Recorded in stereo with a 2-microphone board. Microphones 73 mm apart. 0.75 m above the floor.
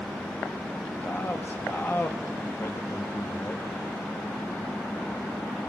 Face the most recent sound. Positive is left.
turn(degrees=30)  # may be behind; listen again after turning